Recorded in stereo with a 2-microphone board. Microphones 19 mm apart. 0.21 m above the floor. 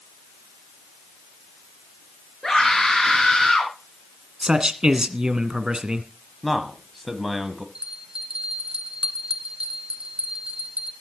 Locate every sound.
2.4 s a scream: 10° left (ahead or behind), 4 m
4.4 s a man speaking: 45° right (ahead or behind), 1.8 m
6.4 s a man speaking: 5° right (ahead or behind), 1.5 m
7.8 s a bell: 45° right (ahead or behind), 2 m